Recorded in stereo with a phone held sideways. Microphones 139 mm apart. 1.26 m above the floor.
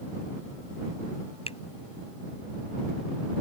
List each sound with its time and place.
1.5 s a finger snap: 50° left (ahead or behind)